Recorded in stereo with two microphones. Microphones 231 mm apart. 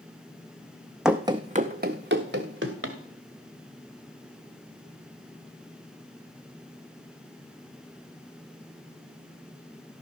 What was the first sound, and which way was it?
Running footsteps, 5° right (ahead or behind).